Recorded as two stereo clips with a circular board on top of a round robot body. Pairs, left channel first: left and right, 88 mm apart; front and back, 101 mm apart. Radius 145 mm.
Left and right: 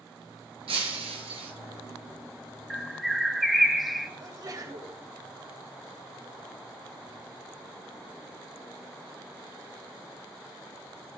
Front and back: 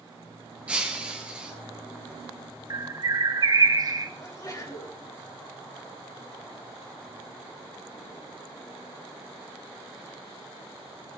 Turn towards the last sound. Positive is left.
turn(degrees=-50)